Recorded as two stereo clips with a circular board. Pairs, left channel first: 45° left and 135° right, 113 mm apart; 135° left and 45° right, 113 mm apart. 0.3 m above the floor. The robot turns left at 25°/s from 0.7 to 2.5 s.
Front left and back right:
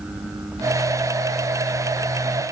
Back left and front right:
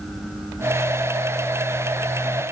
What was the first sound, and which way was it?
Only background noise.